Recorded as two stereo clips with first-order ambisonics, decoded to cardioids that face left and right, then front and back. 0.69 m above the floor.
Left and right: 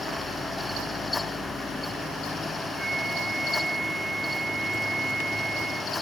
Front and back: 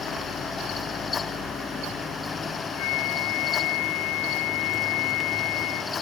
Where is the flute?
10° right.